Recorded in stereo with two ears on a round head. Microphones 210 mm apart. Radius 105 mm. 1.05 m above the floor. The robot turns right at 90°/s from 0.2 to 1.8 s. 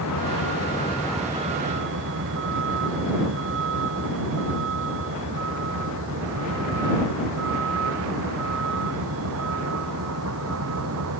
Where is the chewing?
I don't hear chewing.